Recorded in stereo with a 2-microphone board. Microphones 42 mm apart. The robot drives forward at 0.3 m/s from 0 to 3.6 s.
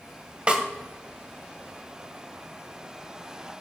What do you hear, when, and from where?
0.5 s a snare drum: 25° right (ahead or behind), 1.6 m; by 0.6 s 30° right (ahead or behind), 1.6 m